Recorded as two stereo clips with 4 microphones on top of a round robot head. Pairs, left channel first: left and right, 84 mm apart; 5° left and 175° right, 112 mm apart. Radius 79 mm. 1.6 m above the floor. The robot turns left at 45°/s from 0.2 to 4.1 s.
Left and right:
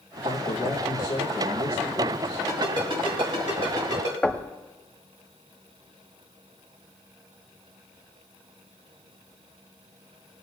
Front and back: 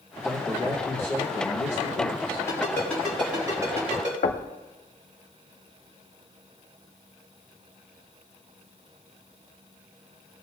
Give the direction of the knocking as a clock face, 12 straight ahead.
12 o'clock.